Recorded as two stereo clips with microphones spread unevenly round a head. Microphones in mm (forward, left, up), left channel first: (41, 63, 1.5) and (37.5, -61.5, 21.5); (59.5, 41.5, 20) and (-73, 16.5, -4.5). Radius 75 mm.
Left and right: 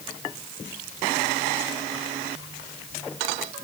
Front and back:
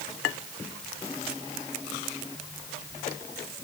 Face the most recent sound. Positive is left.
No sound to turn to.